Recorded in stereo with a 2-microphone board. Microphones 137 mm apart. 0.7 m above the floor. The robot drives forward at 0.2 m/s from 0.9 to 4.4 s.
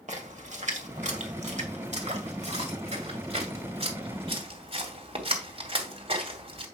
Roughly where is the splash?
Right.